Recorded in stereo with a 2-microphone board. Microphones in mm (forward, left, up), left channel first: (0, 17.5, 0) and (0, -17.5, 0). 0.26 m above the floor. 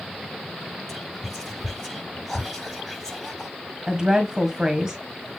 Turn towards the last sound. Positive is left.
turn(degrees=-15)  # may be behind; listen again after turning